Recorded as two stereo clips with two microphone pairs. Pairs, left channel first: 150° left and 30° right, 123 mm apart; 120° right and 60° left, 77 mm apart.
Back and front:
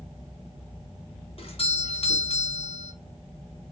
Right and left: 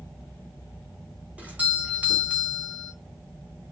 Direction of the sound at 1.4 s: 130° left.